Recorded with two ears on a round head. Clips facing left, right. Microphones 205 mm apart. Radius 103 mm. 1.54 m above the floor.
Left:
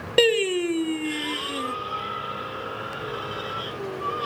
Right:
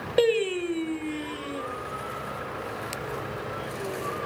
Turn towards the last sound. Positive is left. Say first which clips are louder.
# left 2 dB
turn(degrees=40)  # may be behind; listen again after turning